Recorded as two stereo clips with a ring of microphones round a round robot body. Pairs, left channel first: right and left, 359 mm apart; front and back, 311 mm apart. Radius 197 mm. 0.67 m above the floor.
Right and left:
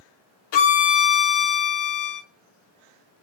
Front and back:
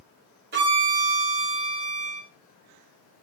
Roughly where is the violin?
Behind right.